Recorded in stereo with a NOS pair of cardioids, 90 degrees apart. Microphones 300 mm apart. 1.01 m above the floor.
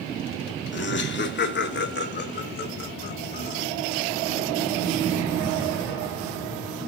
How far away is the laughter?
About 2.5 m.